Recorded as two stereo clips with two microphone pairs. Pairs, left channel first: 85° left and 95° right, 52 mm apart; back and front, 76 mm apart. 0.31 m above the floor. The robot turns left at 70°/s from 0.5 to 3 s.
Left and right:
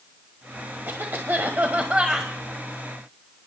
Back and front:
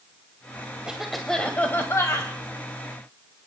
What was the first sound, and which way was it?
A cough, 70° right.